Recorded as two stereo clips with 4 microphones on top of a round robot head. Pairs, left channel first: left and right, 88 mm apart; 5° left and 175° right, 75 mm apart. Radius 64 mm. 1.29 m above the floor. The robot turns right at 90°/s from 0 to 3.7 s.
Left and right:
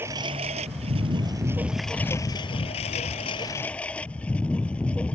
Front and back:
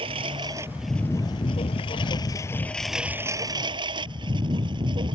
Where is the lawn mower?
165° right; by 5.2 s 170° left.